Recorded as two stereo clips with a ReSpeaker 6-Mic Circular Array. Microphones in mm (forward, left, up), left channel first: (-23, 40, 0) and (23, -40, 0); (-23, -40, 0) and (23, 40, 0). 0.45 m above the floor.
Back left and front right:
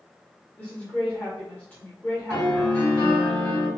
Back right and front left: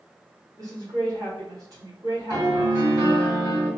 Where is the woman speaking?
60° left, 1.3 m.